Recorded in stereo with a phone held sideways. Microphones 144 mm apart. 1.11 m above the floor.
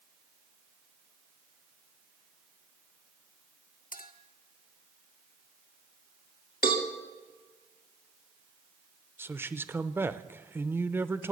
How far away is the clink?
About 1.5 m.